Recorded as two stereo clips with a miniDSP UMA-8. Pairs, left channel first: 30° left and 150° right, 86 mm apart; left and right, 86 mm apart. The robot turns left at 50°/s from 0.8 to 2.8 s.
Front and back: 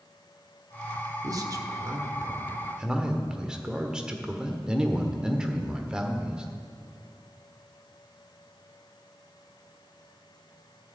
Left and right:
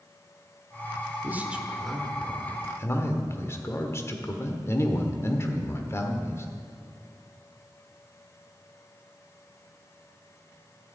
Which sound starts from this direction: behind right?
A man speaking, at 1.2 s.